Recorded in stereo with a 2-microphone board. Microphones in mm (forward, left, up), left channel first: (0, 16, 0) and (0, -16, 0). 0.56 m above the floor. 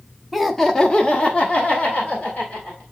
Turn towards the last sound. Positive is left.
turn(degrees=35)  # may be behind; listen again after turning